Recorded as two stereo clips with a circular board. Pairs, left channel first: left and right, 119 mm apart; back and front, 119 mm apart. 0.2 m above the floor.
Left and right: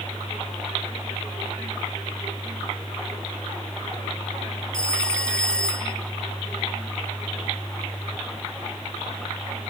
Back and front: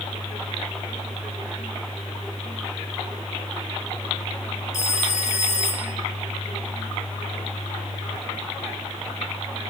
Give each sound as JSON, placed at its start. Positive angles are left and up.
{"t": 4.7, "sound": "a phone ringing", "azimuth_deg": 170, "distance_m": 2.0}